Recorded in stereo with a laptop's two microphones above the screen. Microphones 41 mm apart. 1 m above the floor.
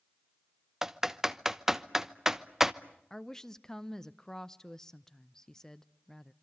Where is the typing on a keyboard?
15° right (ahead or behind), 0.9 m.